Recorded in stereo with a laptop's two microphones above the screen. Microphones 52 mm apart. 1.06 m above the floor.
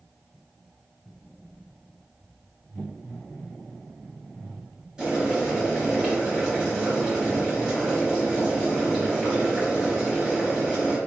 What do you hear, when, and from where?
5.0 s boiling: 15° right (ahead or behind), 1.1 m